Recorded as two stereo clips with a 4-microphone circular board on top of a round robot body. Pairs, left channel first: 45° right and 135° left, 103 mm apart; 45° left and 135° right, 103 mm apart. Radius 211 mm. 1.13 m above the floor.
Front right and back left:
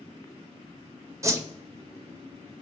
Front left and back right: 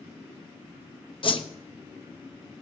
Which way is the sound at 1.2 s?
75° left.